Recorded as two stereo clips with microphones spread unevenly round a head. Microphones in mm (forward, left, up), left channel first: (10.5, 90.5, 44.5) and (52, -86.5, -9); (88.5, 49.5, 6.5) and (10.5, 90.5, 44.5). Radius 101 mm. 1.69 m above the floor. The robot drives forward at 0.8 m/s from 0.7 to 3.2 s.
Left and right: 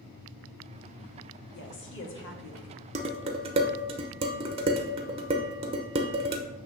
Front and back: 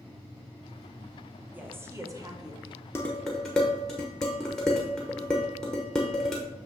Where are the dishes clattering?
120° right, 0.7 m; by 6.4 s 145° right, 0.8 m.